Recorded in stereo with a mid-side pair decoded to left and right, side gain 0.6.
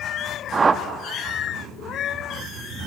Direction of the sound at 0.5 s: 25° right.